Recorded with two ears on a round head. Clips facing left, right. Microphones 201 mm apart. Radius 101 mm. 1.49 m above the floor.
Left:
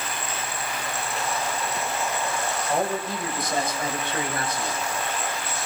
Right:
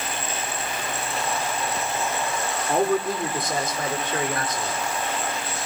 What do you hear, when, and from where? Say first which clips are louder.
2.7 s a man speaking: right 6 dB; 50° right (ahead or behind), 4.5 m; by 4.8 s 35° right (ahead or behind), 6.5 m